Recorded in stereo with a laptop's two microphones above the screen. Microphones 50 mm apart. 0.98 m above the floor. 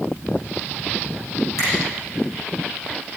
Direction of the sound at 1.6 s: 75° left (ahead or behind).